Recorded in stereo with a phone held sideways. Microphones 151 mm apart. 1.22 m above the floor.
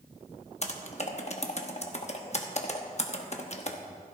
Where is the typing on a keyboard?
45° left (ahead or behind), 1.1 m.